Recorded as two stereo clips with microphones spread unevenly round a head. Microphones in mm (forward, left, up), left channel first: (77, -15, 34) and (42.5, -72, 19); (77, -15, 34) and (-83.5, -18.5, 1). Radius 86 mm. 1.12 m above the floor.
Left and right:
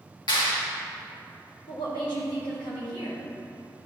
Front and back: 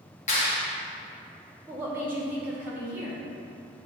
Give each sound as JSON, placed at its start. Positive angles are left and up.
{"t": 0.3, "sound": "a clap", "azimuth_deg": 55, "distance_m": 1.7}
{"t": 1.7, "sound": "a woman speaking", "azimuth_deg": 105, "distance_m": 1.9}